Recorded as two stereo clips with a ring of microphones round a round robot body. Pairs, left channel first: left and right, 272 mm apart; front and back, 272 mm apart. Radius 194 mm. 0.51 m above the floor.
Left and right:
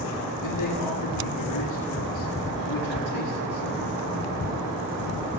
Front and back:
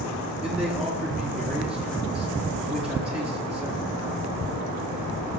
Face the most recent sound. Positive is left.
turn(degrees=95)